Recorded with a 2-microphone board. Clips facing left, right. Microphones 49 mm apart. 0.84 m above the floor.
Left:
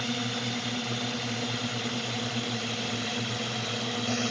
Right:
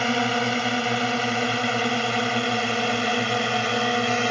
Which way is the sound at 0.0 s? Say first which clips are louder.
Right 10 dB; 60° right (ahead or behind).